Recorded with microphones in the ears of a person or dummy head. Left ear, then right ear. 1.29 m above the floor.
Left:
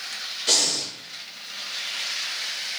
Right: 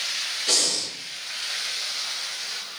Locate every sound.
0.5 s breathing: 20° left (ahead or behind), 0.6 m